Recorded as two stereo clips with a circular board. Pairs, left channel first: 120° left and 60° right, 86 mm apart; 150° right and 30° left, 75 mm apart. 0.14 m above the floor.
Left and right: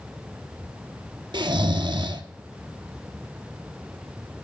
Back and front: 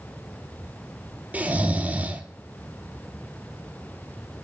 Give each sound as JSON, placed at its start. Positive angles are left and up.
{"t": 1.3, "sound": "snoring", "azimuth_deg": -40, "distance_m": 0.7}